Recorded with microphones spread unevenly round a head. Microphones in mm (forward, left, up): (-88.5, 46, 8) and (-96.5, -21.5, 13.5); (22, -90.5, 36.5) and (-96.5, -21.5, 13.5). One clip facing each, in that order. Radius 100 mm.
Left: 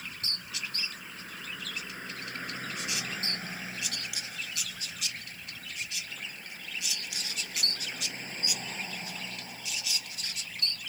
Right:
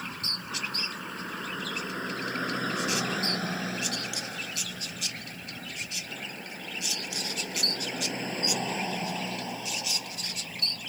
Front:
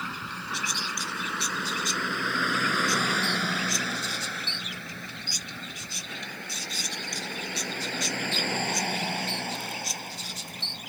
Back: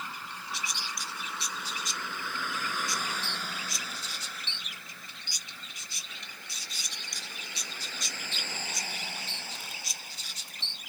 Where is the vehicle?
40° right; by 10.9 s 60° right.